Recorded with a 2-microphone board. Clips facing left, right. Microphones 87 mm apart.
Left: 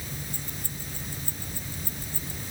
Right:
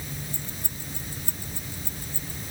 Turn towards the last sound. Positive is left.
turn(degrees=40)  # may be behind; listen again after turning